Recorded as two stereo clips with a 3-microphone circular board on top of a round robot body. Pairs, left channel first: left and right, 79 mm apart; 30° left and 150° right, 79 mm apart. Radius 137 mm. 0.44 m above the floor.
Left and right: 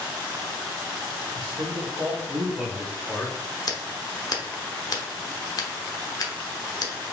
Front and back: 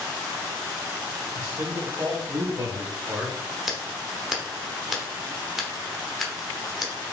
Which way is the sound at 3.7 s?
125° left.